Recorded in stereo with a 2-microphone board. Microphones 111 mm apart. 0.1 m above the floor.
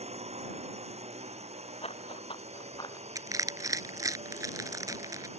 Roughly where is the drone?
Right.